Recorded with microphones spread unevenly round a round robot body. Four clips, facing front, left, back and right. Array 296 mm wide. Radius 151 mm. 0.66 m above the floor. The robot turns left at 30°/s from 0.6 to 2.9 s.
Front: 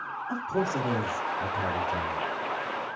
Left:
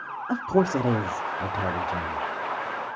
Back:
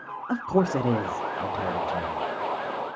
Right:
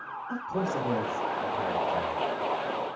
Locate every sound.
0.3 s a man speaking: 115° left, 1.8 m; by 2.2 s 65° left, 1.8 m